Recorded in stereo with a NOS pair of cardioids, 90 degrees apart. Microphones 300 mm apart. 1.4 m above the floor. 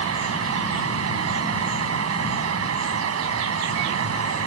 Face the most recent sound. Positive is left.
turn(degrees=-50)